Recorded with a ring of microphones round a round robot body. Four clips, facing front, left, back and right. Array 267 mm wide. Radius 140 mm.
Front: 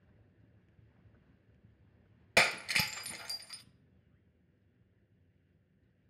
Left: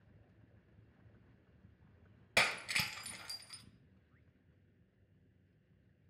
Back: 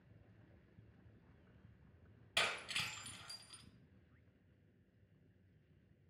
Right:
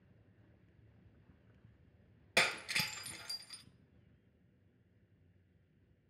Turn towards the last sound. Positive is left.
turn(degrees=0)